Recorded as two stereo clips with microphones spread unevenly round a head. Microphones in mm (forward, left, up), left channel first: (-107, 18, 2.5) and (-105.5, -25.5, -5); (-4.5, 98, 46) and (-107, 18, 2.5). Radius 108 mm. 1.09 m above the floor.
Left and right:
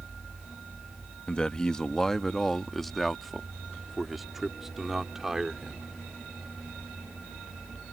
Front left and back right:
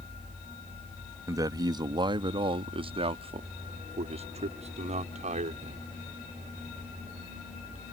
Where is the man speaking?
160° left; by 5.9 s 165° right.